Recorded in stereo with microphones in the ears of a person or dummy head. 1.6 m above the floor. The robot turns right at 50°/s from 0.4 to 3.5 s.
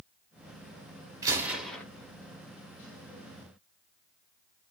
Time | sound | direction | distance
1.2 | a gunshot | 15° right | 0.7 m